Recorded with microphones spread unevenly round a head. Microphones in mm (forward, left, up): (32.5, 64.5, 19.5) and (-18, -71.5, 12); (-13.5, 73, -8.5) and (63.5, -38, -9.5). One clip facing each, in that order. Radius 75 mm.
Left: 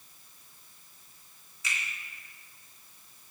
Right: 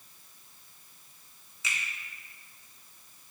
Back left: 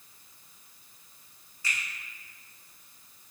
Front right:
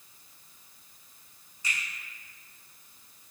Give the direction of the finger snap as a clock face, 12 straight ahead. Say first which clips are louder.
Even, even; 4 o'clock.